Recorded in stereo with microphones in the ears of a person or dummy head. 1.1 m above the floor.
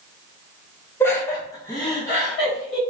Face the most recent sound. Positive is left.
turn(degrees=10)  # may be behind; listen again after turning